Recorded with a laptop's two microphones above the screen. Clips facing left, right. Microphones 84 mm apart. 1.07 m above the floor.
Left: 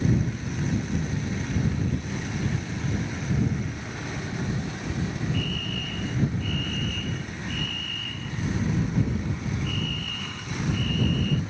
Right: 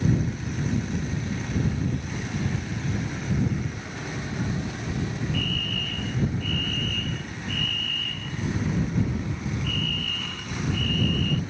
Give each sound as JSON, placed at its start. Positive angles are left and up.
{"t": 5.3, "sound": "a fire alarm", "side_deg": 10}